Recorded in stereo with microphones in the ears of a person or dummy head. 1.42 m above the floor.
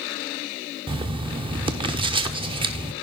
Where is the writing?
25° right (ahead or behind), 0.6 m.